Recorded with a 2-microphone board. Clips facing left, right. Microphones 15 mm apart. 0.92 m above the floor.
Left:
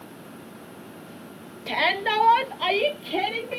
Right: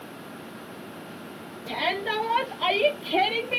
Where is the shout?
45° left (ahead or behind), 0.9 m; by 3.6 s 20° right (ahead or behind), 0.7 m.